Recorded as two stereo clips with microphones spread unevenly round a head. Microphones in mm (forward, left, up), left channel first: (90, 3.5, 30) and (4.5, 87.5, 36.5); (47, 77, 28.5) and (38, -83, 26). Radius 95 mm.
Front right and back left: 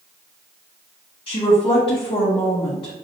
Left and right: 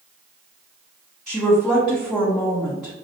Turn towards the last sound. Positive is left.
turn(degrees=0)